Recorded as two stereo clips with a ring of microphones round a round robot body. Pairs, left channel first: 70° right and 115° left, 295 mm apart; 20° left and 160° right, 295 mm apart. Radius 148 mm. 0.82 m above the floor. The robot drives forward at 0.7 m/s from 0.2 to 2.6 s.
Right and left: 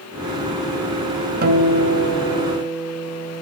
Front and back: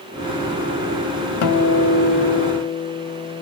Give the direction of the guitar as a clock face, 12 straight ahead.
10 o'clock.